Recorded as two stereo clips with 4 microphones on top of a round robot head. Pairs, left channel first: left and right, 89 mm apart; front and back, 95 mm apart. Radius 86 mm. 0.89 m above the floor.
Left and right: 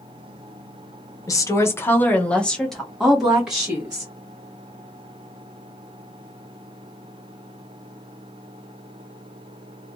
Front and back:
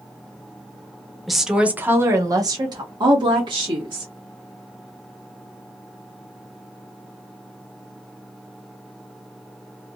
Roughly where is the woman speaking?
Left.